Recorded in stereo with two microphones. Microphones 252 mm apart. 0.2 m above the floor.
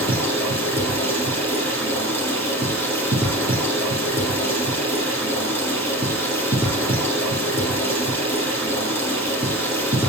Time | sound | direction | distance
0.0 | running water | 10° left (ahead or behind) | 3 m